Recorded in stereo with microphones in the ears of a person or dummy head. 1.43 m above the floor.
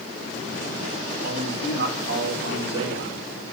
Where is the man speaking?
65° right (ahead or behind), 8 m.